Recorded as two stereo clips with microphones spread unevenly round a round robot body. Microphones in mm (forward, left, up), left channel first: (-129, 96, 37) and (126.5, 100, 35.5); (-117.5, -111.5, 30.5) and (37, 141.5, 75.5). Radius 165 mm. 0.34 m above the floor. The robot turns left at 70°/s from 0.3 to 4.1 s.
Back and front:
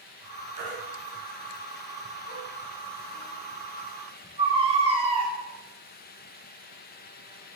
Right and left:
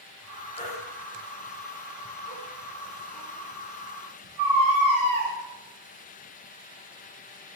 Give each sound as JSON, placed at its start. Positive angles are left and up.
{"t": 0.6, "sound": "a baby crying", "azimuth_deg": -45, "distance_m": 3.5}